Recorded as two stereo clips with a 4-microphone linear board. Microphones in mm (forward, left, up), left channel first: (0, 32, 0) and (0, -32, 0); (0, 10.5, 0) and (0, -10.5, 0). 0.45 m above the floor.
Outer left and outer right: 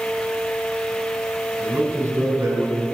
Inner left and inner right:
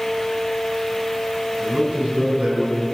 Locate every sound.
1.6 s a man speaking: 50° right (ahead or behind), 3.5 m